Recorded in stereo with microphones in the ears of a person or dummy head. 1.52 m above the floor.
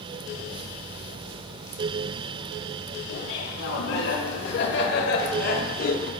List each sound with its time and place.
3.1 s laughter: 75° left (ahead or behind), 3 m; by 6.1 s 50° left (ahead or behind), 1.8 m